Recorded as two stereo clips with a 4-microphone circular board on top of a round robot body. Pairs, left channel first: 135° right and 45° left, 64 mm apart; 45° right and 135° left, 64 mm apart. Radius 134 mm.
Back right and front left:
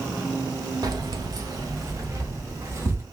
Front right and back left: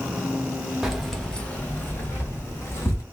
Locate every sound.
0.8 s keys jangling: 50° left, 1.0 m; by 3.0 s straight ahead, 2 m